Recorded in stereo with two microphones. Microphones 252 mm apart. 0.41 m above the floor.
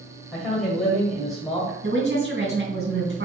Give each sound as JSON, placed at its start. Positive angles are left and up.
{"t": 0.3, "sound": "a man speaking", "side_deg": 0, "distance_m": 1.9}
{"t": 1.8, "sound": "a woman speaking", "side_deg": -45, "distance_m": 2.5}